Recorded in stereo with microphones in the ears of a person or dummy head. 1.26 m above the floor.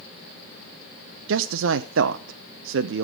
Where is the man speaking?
65° right (ahead or behind), 0.7 m.